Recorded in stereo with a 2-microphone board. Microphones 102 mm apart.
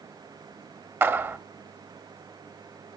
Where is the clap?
20° right (ahead or behind), 0.8 m.